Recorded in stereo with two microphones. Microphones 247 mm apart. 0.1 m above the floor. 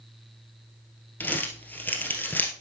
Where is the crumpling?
5° left (ahead or behind), 1.7 m.